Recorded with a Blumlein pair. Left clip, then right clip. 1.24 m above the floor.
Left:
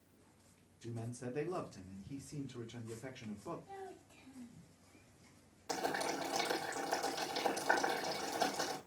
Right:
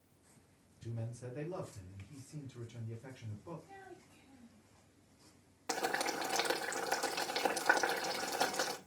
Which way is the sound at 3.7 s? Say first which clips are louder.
Left 4 dB; 45° left.